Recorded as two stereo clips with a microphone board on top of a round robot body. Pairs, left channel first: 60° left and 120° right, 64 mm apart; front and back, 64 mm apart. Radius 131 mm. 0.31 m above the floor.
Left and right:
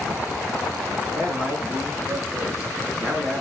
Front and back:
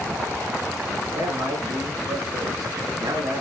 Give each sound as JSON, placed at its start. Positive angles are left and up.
{"t": 1.1, "sound": "a man speaking", "azimuth_deg": 165, "distance_m": 6.5}